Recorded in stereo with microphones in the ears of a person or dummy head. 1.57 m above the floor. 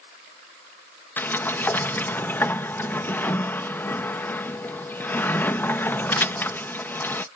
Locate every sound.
1.2 s a sliding door: 10° left (ahead or behind)